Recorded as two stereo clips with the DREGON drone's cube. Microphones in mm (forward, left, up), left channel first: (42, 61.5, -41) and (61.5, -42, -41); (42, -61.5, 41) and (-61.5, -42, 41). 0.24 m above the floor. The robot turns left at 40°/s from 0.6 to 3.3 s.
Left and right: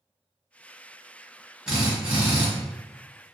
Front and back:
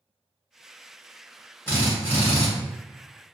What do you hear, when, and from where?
1.7 s a drill: 15° right, 1.2 m; by 2.5 s 45° right, 1.2 m